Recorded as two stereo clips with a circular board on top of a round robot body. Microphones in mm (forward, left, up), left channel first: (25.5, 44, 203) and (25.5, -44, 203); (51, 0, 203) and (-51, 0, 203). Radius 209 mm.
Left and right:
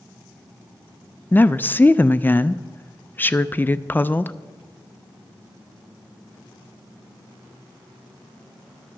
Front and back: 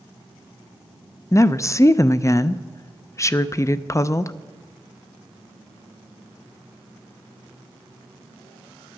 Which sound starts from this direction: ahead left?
A woman speaking, at 1.3 s.